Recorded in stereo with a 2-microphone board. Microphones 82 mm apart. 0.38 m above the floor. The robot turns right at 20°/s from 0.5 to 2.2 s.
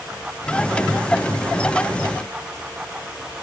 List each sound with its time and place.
Only background noise.